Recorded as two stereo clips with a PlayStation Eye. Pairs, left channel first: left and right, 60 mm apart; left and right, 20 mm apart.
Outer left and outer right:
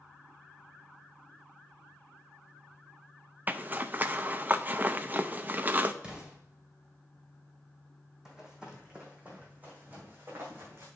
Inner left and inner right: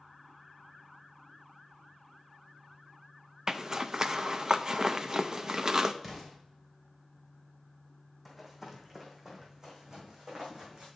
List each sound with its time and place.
3.5 s a zipper: 30° right (ahead or behind), 0.5 m
6.0 s an explosion: 20° right (ahead or behind), 2.5 m
8.2 s running footsteps: 10° right (ahead or behind), 2 m; by 10.9 s 40° right (ahead or behind), 3 m